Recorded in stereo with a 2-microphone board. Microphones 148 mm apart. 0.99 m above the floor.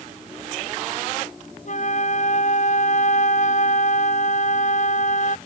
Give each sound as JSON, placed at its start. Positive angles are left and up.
{"t": 1.6, "sound": "a flute", "side_deg": 60}